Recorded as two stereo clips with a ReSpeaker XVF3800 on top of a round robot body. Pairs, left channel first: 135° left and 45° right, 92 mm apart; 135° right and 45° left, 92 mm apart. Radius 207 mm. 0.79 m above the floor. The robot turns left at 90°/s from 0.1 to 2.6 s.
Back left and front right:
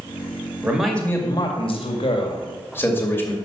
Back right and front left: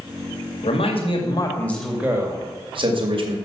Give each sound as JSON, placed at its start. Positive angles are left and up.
{"t": 0.6, "sound": "a man speaking", "azimuth_deg": -115, "distance_m": 2.0}